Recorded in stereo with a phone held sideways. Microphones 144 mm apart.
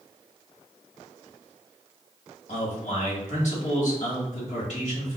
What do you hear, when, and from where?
2.5 s a man speaking: 55° left (ahead or behind), 1.7 m